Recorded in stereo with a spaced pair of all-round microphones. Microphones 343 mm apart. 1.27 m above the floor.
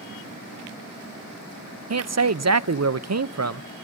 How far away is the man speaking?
About 0.6 m.